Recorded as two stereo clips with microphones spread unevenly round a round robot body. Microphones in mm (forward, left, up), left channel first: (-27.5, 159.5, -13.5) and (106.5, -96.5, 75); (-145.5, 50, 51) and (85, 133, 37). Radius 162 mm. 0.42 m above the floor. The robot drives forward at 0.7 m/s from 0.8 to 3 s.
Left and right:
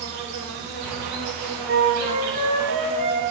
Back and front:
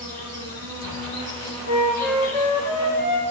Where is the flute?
120° right, 5 m; by 3.2 s 130° right, 5.5 m.